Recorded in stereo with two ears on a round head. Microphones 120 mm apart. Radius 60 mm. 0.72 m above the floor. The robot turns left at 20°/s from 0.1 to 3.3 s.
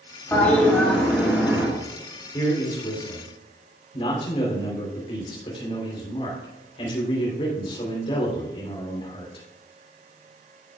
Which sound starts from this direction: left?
A man speaking, at 2.3 s.